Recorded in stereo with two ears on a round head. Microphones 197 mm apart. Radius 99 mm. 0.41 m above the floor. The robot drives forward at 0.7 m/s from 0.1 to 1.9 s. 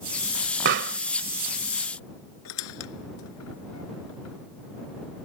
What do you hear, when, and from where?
0.7 s a pop: 55° right (ahead or behind)
2.5 s a squeak: 85° left